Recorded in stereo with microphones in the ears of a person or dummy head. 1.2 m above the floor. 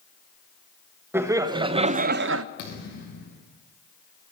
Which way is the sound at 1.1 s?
20° right (ahead or behind).